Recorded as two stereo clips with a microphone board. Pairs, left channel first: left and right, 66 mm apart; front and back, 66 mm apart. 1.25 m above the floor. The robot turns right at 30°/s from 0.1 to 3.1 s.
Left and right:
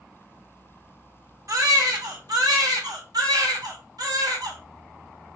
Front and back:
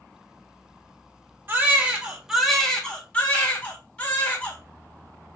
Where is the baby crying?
120° right, 1.8 m; by 4.6 s 75° right, 1.8 m.